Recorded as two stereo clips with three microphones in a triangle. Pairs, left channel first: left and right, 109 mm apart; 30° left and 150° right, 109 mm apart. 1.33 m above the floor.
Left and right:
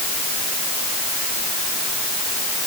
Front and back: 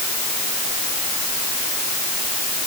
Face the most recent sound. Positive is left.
No sound to turn to.